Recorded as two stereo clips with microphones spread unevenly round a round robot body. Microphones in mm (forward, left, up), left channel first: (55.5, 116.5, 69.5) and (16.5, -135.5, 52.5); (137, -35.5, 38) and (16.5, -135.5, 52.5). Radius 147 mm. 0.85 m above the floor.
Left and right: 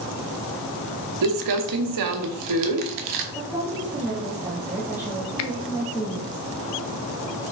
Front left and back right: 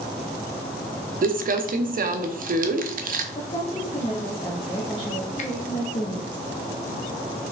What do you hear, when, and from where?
1.2 s crumpling: 105° right, 0.7 m
3.4 s a woman speaking: 20° right, 1.3 m
5.4 s a finger snap: 70° left, 0.5 m